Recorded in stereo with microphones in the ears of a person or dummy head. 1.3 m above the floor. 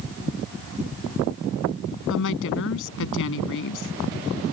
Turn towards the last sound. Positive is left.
turn(degrees=70)  # may be behind; listen again after turning